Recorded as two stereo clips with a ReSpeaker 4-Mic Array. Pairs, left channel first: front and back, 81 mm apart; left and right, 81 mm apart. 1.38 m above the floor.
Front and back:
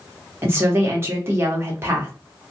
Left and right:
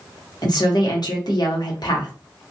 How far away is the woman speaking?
About 1.1 m.